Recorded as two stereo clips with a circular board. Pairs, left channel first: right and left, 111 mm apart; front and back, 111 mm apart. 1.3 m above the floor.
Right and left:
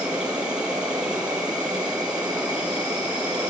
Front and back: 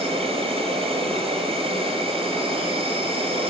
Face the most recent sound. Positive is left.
turn(degrees=170)